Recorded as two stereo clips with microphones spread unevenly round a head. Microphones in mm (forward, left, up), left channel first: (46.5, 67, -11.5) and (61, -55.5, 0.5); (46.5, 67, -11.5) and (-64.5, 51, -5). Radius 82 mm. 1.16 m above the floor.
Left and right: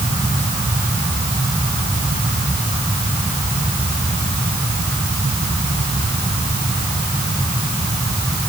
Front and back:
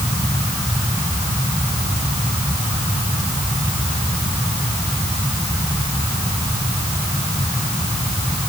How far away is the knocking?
I don't hear knocking.